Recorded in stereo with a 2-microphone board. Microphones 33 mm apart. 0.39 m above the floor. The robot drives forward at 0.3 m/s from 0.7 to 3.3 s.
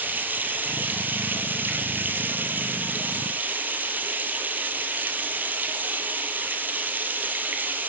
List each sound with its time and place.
0.0 s running water: 75° right (ahead or behind), 1.4 m; by 7.9 s 70° right (ahead or behind), 1.4 m